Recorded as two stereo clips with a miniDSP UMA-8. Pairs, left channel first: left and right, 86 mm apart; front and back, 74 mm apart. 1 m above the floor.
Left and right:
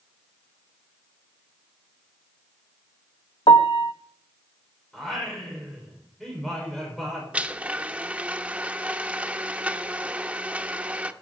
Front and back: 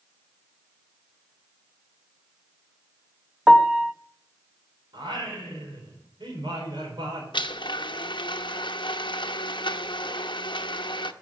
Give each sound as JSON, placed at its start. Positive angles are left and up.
{"t": 3.5, "sound": "a piano", "azimuth_deg": 100, "distance_m": 0.7}
{"t": 4.9, "sound": "singing", "azimuth_deg": 175, "distance_m": 4.5}
{"t": 7.3, "sound": "a blender", "azimuth_deg": -15, "distance_m": 0.8}